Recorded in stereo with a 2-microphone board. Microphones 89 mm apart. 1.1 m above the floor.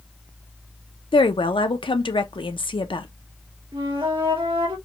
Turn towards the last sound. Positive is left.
turn(degrees=-80)